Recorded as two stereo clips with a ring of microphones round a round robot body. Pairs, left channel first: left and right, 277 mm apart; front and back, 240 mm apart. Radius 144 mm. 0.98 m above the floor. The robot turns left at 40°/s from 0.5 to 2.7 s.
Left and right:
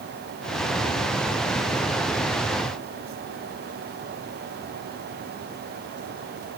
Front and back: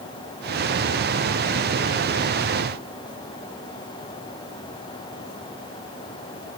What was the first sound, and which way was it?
Only background noise.